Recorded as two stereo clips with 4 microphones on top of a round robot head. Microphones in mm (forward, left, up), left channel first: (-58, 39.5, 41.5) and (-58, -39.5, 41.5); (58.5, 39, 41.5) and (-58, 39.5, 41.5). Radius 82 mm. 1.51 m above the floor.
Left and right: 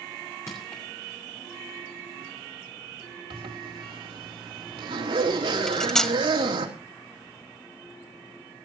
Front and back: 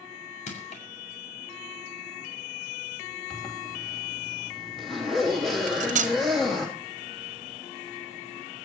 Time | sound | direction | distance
0.5 | crushing | 20° left | 6.5 m
3.3 | a zipper | 90° right | 3 m
5.7 | cutlery clinking | 170° left | 1.5 m